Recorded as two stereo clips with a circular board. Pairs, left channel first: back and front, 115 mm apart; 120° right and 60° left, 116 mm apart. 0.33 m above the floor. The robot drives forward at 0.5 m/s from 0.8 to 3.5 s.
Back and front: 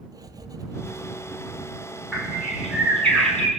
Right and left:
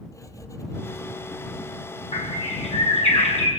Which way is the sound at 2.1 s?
95° right.